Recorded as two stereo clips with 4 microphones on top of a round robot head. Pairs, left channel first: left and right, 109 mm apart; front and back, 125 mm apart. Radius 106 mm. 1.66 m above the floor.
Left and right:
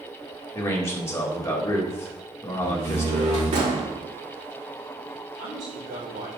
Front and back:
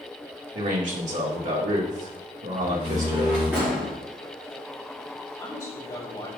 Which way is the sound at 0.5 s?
155° left.